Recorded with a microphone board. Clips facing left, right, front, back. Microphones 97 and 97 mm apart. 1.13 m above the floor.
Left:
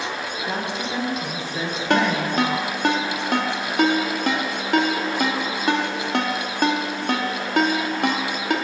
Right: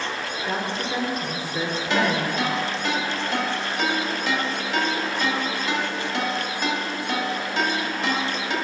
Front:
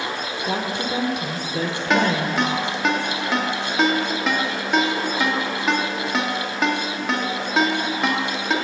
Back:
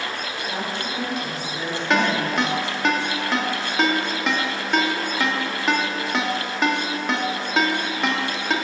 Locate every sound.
0.5 s a woman speaking: straight ahead, 0.8 m
1.9 s a ringtone: 90° left, 0.8 m